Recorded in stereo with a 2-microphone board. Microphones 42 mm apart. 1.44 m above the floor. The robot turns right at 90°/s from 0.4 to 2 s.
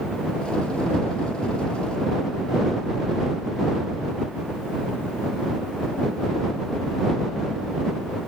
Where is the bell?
I don't hear a bell.